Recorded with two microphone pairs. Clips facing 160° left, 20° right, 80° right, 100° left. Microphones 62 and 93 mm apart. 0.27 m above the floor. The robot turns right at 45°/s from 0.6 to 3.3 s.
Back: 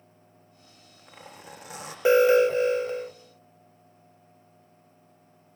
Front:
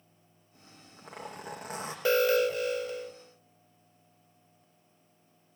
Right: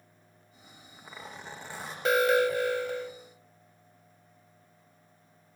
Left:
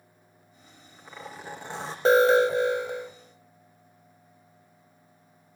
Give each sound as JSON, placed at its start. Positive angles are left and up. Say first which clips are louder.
{"t": 0.5, "sound": "a zipper", "louder": "front 5 dB, even", "azimuth_deg": -20, "distance_m": 8.0}
{"t": 2.0, "sound": "an alarm", "louder": "back 7 dB, left 5 dB", "azimuth_deg": 115, "distance_m": 0.9}